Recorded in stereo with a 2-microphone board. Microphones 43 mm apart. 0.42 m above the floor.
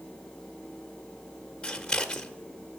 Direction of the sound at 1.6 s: 15° left (ahead or behind).